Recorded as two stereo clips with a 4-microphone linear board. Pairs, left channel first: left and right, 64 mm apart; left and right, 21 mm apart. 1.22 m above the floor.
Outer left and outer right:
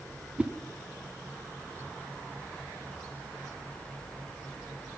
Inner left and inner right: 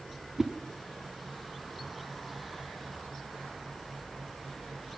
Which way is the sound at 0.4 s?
20° right (ahead or behind).